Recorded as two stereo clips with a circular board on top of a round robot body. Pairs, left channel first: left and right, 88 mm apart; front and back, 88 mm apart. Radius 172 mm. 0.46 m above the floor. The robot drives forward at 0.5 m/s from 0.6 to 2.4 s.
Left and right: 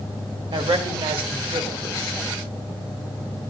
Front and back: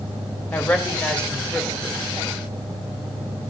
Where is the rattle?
No rattle in this recording.